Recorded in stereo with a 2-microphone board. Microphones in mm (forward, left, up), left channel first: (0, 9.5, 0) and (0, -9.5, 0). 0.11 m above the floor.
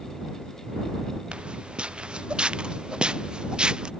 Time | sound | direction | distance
1.3 | footsteps | 85° right | ?